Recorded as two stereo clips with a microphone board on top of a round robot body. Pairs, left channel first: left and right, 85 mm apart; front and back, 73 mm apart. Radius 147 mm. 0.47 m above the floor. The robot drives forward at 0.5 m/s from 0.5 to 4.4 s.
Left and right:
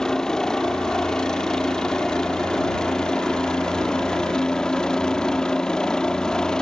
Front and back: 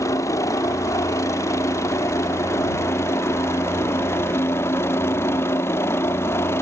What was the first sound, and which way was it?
A helicopter, 10° left.